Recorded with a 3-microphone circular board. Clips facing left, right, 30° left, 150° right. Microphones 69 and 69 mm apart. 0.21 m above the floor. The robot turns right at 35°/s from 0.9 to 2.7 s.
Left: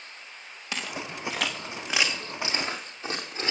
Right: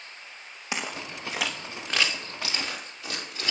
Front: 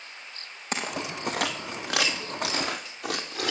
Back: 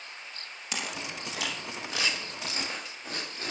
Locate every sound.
0.7 s footsteps: 20° right, 3 m; by 3.5 s 25° left, 4 m